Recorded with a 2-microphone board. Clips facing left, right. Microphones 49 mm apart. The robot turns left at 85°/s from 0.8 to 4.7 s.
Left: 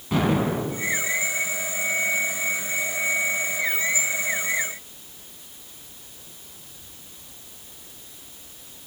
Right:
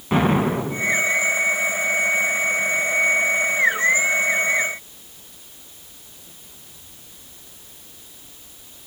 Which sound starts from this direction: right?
An explosion, at 0.1 s.